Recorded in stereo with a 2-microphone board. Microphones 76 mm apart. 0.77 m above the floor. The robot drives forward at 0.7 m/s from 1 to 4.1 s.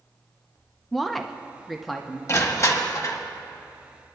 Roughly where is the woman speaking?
Centre.